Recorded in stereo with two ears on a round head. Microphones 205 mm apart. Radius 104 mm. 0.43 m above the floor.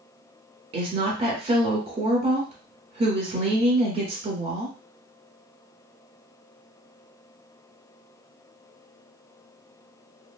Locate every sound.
0.7 s a woman speaking: 25° right (ahead or behind), 1.1 m